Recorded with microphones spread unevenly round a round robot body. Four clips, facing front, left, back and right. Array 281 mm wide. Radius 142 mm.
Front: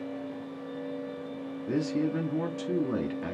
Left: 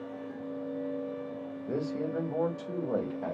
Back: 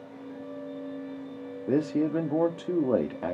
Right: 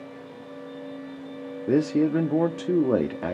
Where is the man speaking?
100° right, 1.1 m.